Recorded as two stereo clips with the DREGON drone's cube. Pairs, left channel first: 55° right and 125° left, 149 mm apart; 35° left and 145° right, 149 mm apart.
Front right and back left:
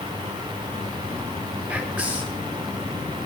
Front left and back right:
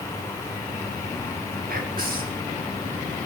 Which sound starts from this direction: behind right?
Whispering, at 1.7 s.